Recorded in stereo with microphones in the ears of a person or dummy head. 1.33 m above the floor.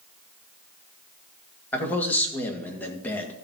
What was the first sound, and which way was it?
A man speaking, 10° left (ahead or behind).